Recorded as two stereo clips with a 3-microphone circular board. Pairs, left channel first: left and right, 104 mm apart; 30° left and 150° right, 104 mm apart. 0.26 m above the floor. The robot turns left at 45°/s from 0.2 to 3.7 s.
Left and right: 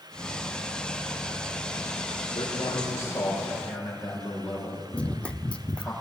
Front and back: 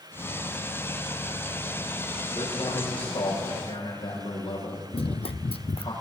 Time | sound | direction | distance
2.4 | a man speaking | 60° left | 7 m
4.9 | running footsteps | 10° left | 0.6 m